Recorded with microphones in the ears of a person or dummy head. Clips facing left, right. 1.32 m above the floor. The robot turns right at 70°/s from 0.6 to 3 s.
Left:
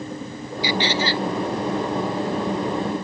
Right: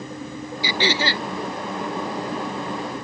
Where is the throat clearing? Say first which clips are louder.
Left 1 dB; 85° right; by 1.3 s 40° right.